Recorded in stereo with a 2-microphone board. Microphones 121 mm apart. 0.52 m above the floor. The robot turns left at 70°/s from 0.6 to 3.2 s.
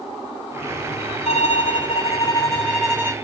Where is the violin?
110° left, 1.5 m; by 3.1 s 20° right, 1.5 m.